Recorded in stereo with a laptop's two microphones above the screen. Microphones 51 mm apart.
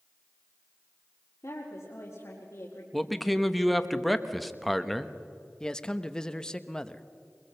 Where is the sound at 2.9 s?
Centre (ahead or behind), 1.2 m.